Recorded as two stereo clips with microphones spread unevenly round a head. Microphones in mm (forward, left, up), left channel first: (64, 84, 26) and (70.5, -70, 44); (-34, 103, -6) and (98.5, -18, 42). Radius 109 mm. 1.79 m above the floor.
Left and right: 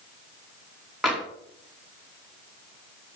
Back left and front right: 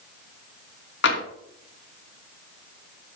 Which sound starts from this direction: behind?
Tapping, at 1.0 s.